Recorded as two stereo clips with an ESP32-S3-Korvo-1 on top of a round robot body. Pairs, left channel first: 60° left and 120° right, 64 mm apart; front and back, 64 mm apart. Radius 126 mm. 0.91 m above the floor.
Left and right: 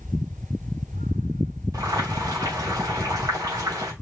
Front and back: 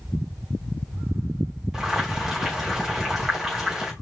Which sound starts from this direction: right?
Boiling, at 1.7 s.